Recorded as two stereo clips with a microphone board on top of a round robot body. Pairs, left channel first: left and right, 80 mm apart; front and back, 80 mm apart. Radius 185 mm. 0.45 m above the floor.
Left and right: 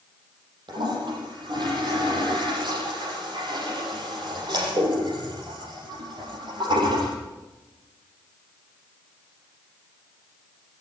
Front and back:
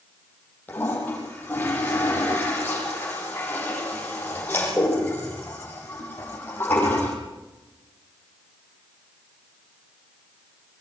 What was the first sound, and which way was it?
A toilet flushing, 70° right.